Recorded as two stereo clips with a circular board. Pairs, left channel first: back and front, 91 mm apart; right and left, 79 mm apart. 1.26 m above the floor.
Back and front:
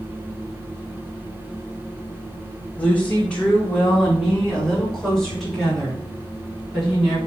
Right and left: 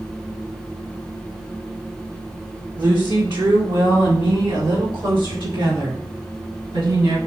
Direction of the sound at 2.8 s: 110° left.